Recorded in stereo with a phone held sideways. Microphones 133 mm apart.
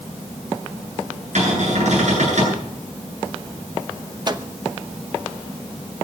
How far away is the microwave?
About 1.0 m.